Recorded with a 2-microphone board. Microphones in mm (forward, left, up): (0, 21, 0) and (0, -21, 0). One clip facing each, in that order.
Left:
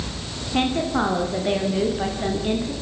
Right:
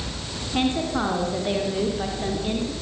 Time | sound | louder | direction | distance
0.5 | a woman speaking | left 2 dB | 15° left (ahead or behind) | 7.5 m